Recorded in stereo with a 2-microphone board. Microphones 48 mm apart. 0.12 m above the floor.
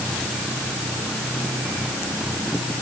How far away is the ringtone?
No ringtone in this recording.